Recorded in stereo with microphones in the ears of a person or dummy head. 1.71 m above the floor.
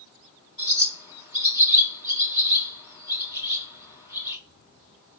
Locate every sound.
0.6 s a bird: 20° left (ahead or behind), 4 m